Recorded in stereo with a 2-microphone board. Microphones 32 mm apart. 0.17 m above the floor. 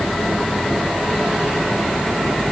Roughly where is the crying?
I don't hear crying.